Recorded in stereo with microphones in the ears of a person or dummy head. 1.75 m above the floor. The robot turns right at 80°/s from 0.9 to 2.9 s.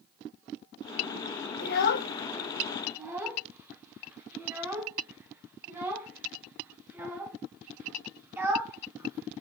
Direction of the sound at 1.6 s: 55° left (ahead or behind).